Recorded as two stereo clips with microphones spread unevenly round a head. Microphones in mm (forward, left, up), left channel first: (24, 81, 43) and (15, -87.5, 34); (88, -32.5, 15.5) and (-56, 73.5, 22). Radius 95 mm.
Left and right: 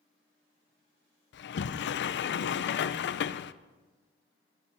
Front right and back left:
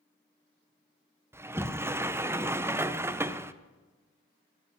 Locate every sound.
1.3 s a sliding door: 65° left, 0.5 m